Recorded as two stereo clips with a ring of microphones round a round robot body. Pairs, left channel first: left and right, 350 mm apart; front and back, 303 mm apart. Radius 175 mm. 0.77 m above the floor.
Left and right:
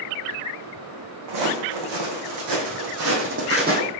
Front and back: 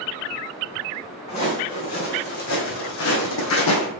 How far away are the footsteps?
About 2 m.